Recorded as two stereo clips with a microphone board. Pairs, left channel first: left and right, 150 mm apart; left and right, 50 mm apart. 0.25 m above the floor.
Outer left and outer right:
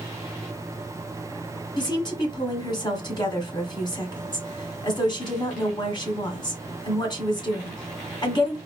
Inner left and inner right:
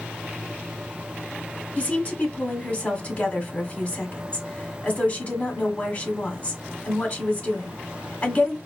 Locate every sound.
1.8 s a woman speaking: 35° left (ahead or behind), 1.5 m